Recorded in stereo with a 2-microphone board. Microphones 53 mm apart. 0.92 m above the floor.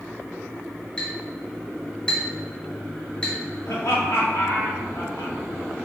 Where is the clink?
15° left (ahead or behind), 2 m.